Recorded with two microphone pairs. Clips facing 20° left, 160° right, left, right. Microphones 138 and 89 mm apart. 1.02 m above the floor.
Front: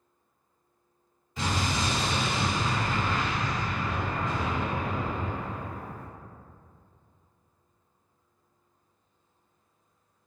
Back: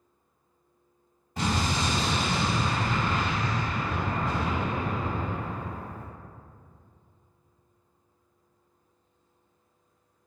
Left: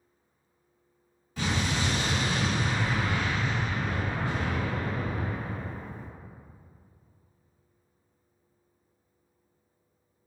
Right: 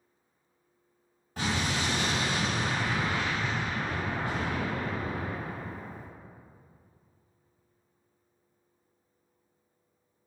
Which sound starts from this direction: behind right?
An explosion, at 1.4 s.